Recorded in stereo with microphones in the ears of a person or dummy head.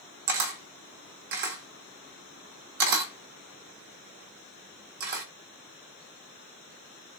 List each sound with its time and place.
0.3 s a camera shutter: 50° right (ahead or behind), 1.0 m